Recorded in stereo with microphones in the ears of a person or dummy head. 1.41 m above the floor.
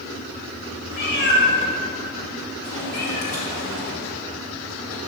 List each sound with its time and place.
0.9 s a cat meowing: 60° left (ahead or behind), 1.9 m